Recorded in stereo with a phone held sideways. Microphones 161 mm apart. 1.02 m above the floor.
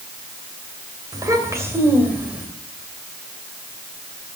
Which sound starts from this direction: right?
A child speaking, at 1.1 s.